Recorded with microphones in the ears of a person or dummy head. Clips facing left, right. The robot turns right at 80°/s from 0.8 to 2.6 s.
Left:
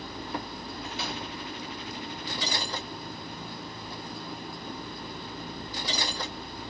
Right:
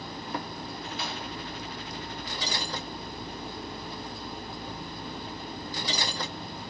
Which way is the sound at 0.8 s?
45° left (ahead or behind).